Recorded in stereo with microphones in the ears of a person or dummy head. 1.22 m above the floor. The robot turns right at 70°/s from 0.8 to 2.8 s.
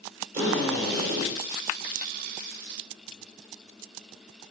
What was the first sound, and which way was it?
A drill, 140° right.